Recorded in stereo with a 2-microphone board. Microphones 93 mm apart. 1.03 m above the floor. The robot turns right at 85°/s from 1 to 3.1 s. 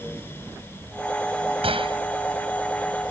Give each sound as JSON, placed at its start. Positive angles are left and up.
{"t": 1.6, "sound": "a gunshot", "side_deg": -85}